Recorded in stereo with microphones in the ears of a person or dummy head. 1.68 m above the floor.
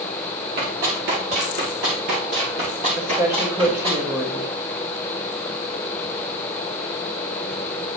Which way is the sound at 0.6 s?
50° right (ahead or behind).